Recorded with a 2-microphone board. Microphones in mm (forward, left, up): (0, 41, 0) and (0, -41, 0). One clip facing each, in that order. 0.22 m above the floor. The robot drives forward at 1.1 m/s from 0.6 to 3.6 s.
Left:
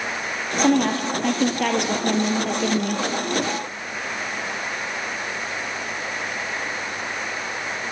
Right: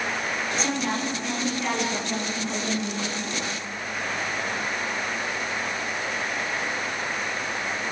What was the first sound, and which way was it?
A woman speaking, 55° left (ahead or behind).